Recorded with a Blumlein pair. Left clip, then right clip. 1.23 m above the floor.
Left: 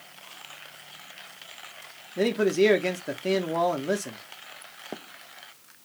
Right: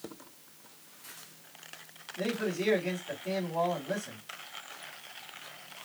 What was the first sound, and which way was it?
A man speaking, 40° left.